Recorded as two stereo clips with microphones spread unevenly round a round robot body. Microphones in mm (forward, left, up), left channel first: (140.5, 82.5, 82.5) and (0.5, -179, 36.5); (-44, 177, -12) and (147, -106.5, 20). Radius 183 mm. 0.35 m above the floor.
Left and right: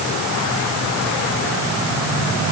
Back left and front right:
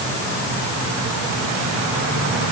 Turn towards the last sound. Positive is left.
No sound to turn to.